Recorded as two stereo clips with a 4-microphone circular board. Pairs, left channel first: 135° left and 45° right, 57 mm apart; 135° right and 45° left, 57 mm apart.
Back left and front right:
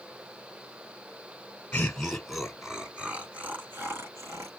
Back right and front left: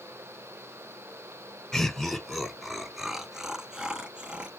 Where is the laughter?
165° left, 1.2 m; by 4.5 s 25° right, 1.8 m.